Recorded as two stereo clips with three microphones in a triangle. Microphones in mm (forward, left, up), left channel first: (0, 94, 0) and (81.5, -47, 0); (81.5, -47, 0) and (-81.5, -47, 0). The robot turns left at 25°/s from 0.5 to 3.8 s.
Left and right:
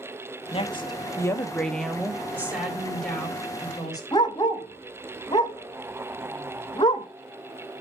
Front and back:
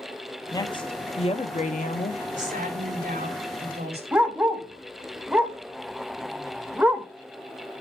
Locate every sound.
0.5 s a woman speaking: 65° left, 1.1 m; by 2.2 s 25° left, 1.1 m
2.3 s a woman speaking: 135° right, 3 m; by 4.0 s 175° right, 3 m
4.1 s a dog barking: 115° left, 1.1 m